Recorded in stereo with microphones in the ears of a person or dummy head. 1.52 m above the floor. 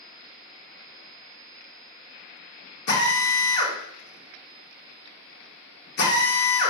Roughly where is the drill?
Left.